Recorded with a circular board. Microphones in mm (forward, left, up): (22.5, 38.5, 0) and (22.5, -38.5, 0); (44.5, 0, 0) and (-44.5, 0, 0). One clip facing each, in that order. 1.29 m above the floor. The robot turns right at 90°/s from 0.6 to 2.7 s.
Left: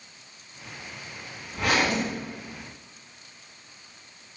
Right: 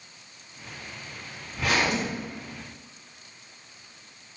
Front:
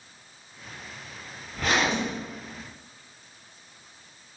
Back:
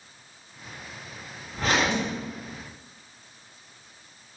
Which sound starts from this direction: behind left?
A zipper, at 1.5 s.